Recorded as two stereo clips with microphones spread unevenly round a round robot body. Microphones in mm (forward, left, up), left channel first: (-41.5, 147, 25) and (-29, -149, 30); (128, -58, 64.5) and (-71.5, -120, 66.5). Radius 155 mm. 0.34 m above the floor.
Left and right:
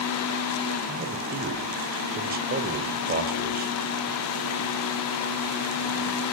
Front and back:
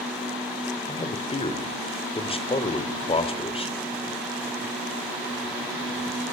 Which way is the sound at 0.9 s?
35° right.